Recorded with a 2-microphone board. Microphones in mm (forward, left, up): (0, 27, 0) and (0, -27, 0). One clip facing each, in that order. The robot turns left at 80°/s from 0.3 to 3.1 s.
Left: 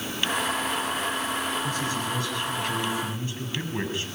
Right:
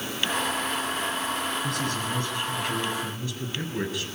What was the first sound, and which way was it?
A man speaking, 95° right.